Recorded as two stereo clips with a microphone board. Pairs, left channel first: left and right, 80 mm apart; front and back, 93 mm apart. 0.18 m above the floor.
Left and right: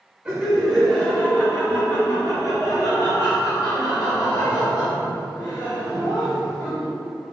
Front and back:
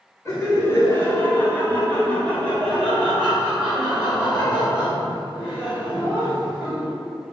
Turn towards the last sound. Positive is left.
turn(degrees=100)